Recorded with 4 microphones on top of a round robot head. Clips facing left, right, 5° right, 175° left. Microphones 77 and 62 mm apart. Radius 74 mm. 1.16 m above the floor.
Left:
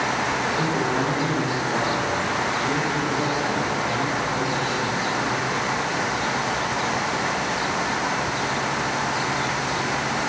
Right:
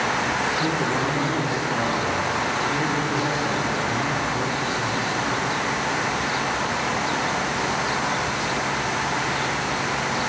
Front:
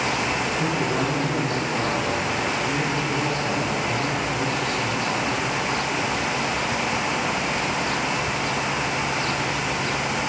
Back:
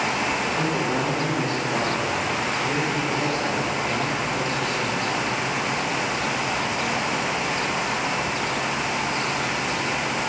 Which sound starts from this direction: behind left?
A man speaking, at 0.6 s.